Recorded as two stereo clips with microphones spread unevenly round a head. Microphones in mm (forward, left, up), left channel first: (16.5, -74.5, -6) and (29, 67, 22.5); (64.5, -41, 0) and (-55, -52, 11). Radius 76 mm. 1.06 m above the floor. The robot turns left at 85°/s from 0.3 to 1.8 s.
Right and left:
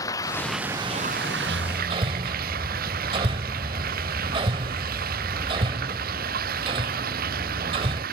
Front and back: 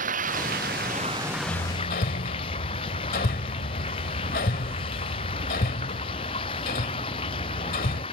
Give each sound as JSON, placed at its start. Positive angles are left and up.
{"t": 0.0, "sound": "running water", "azimuth_deg": -165}
{"t": 1.5, "sound": "hammering", "azimuth_deg": 65}